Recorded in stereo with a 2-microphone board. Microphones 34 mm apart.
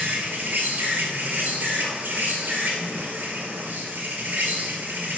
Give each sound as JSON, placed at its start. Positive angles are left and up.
{"t": 0.0, "sound": "an insect", "side_deg": -80, "distance_m": 1.8}